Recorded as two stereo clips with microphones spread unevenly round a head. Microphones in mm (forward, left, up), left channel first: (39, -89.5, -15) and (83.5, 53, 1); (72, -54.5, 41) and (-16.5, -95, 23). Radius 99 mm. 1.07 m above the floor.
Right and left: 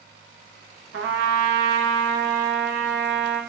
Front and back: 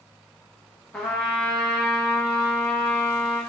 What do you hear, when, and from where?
0.9 s a trumpet: 110° left, 0.6 m